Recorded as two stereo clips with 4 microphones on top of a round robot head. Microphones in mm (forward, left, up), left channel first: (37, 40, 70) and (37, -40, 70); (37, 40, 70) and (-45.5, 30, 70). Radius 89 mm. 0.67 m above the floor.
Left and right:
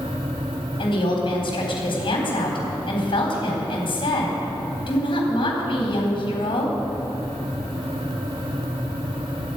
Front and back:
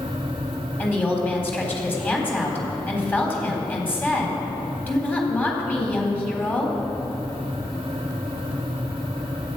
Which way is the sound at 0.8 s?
75° left.